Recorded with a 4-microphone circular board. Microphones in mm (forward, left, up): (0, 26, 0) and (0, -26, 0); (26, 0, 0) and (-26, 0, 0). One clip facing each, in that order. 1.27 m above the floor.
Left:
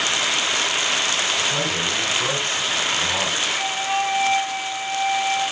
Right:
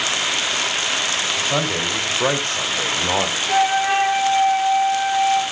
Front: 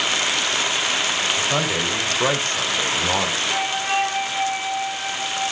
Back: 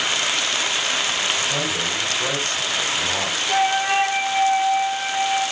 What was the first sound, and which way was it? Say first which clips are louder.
A man speaking: right 2 dB, front 2 dB; 55° right.